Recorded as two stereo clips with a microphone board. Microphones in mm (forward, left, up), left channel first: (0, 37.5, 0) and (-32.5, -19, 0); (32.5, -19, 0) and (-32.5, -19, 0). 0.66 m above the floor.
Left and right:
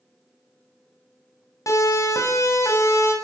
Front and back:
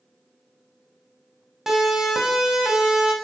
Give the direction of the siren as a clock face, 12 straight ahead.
9 o'clock.